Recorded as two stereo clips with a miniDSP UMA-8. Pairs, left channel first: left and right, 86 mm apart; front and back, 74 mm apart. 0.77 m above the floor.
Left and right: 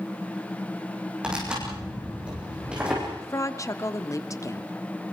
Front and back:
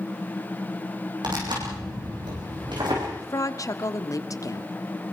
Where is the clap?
I don't hear a clap.